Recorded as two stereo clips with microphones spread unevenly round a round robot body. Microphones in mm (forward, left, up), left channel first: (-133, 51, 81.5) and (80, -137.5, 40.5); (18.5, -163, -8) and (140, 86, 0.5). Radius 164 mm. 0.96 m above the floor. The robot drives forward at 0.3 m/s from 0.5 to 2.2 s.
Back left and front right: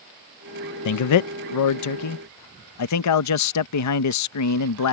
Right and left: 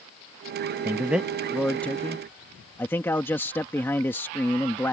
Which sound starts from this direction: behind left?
A man speaking, at 0.8 s.